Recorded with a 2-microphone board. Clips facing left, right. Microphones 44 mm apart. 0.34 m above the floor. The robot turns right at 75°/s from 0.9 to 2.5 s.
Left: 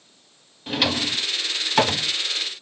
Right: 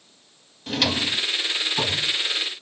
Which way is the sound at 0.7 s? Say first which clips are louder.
Even; 10° left (ahead or behind).